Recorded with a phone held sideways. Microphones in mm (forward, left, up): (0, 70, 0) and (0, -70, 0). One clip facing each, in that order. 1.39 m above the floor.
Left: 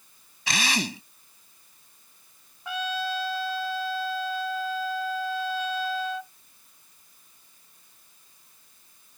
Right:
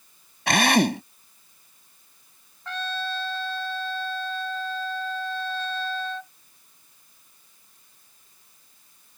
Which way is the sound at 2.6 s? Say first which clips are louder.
Left 1 dB; 10° left (ahead or behind).